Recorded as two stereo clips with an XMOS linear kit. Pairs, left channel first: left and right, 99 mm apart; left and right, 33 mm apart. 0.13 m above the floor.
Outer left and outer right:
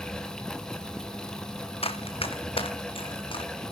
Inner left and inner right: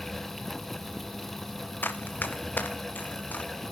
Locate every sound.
1.8 s running footsteps: 80° left, 1.7 m; by 3.5 s 65° left (ahead or behind), 2.5 m